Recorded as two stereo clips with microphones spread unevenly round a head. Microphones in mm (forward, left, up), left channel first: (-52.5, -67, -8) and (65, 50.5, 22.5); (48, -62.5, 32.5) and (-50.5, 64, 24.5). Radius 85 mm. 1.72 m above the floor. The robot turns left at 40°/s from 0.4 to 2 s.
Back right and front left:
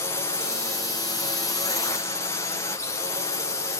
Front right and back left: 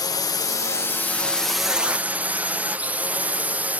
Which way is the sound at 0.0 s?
100° right.